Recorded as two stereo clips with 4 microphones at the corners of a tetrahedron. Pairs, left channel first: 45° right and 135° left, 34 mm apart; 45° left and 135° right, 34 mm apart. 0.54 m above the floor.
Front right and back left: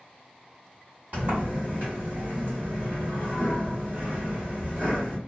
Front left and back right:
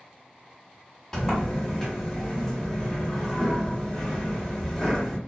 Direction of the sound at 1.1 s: 120° left.